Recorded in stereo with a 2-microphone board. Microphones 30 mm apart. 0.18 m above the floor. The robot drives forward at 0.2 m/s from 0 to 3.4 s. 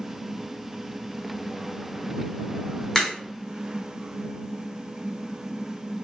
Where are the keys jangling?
I don't hear keys jangling.